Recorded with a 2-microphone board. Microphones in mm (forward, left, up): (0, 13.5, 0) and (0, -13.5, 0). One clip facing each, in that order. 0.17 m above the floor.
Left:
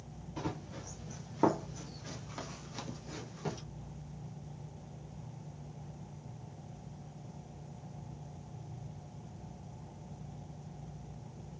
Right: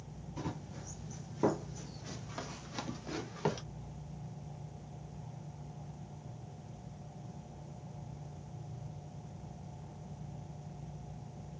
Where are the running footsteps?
50° left (ahead or behind), 1.7 m; by 3.6 s 50° right (ahead or behind), 1.0 m.